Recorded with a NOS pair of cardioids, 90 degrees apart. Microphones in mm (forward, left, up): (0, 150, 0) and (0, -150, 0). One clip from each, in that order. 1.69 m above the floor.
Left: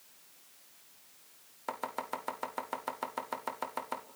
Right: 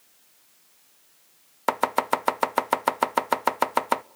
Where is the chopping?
70° right, 0.6 m.